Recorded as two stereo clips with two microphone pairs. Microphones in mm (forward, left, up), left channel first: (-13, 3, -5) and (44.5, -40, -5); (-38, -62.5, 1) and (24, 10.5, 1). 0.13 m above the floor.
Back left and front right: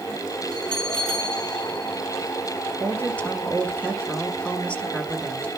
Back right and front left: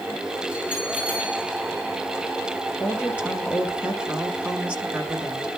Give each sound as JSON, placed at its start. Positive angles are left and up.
{"t": 0.5, "sound": "a bell", "azimuth_deg": 125, "distance_m": 5.0}
{"t": 2.8, "sound": "a woman speaking", "azimuth_deg": 110, "distance_m": 1.4}